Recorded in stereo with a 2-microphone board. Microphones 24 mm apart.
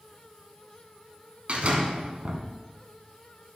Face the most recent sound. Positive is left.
turn(degrees=-55)  # may be behind; listen again after turning